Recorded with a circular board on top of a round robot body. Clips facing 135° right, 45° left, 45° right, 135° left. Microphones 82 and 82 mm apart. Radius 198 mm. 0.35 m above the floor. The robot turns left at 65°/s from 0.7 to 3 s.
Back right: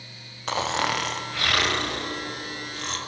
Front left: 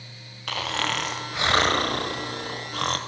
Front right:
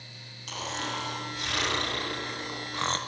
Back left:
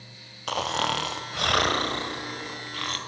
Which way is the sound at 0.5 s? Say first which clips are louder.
Back right 3 dB, back left 8 dB; 160° left.